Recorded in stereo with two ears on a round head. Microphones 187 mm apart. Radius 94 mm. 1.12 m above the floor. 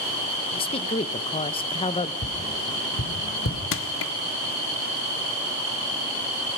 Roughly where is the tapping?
Left.